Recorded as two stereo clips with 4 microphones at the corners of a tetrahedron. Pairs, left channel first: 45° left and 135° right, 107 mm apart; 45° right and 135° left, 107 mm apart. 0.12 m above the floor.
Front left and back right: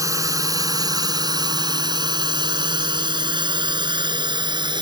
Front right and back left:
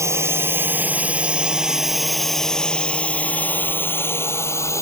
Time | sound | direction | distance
0.0 | a drone | 175° right | ?